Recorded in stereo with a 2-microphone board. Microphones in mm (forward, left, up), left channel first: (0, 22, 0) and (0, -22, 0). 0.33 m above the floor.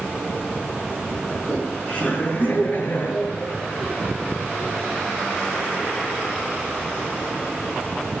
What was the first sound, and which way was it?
Laughter, 20° left (ahead or behind).